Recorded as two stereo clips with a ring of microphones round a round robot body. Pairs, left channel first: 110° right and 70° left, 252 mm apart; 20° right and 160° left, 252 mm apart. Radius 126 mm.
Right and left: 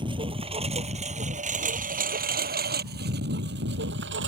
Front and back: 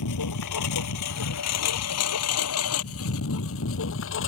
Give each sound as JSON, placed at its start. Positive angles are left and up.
{"t": 0.0, "sound": "a lawn mower", "azimuth_deg": -5}